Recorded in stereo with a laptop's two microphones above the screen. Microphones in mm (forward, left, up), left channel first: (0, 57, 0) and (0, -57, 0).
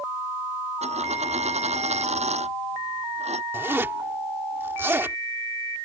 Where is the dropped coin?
75° right (ahead or behind).